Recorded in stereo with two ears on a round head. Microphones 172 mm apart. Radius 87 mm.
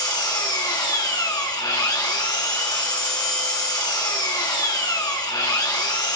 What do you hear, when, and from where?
0.0 s an engine running: 20° left (ahead or behind), 2.5 m